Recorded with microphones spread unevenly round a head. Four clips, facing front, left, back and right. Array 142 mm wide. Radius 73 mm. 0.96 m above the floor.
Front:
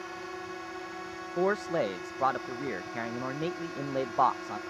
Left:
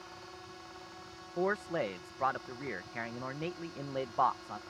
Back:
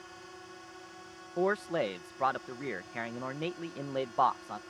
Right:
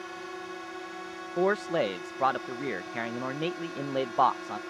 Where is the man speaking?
80° right.